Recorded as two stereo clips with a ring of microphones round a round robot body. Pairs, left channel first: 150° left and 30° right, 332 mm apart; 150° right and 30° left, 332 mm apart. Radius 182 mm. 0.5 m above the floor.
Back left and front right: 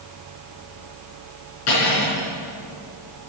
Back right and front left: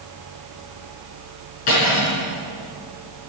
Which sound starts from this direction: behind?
Cutlery clinking, at 1.7 s.